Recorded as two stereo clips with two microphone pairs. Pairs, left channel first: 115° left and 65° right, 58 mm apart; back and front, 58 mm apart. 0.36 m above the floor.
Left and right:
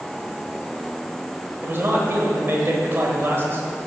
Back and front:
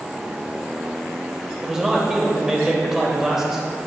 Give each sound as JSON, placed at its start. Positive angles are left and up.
{"t": 1.6, "sound": "a man speaking", "azimuth_deg": -80, "distance_m": 1.3}